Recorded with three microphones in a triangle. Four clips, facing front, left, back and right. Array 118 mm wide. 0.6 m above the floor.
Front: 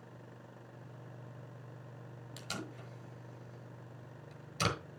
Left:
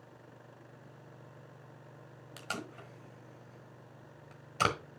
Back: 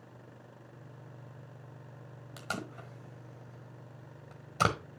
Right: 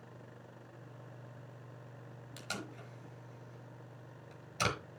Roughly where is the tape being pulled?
Behind.